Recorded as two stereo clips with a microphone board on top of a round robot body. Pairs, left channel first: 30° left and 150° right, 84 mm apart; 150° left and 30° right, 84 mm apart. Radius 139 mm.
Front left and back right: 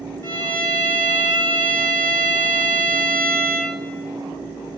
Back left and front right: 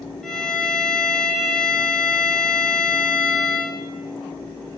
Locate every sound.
0.2 s a violin: 75° left, 1.2 m